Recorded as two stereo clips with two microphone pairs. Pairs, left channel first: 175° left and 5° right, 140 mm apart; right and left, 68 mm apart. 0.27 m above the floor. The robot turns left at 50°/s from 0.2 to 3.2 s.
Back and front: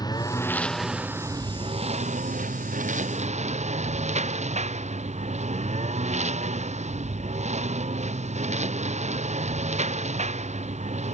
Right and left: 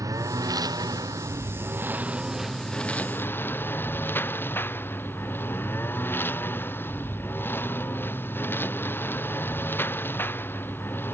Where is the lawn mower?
115° left; by 11.2 s 35° right.